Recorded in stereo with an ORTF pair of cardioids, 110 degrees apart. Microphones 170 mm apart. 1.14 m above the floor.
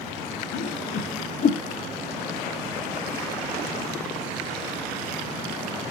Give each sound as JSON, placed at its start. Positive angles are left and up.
{"t": 0.5, "sound": "a whoosh", "azimuth_deg": 45, "distance_m": 0.8}